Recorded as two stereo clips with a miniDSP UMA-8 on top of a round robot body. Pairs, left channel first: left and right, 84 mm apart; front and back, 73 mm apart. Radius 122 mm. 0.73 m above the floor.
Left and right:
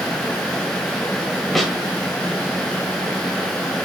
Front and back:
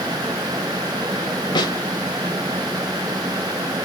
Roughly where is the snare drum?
Ahead.